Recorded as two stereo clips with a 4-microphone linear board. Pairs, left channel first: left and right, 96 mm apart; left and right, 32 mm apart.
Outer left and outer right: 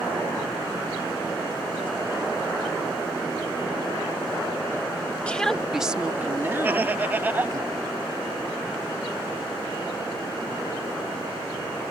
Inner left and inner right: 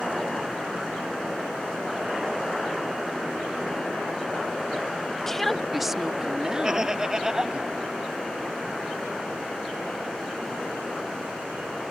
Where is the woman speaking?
15° left (ahead or behind); by 7.6 s 40° right (ahead or behind).